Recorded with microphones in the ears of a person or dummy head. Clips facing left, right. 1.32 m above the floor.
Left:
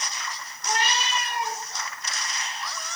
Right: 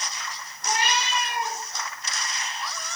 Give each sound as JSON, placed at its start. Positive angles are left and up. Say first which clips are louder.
{"t": 0.6, "sound": "a cat meowing", "louder": "right 1 dB", "side_deg": -20, "distance_m": 2.5}